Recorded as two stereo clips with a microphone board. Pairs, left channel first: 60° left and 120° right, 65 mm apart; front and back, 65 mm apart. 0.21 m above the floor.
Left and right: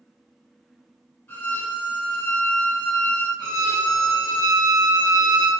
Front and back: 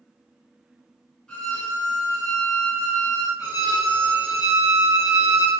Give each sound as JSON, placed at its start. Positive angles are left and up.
{"t": 1.3, "sound": "a violin", "azimuth_deg": 65, "distance_m": 1.0}
{"t": 3.4, "sound": "a violin", "azimuth_deg": -130, "distance_m": 1.9}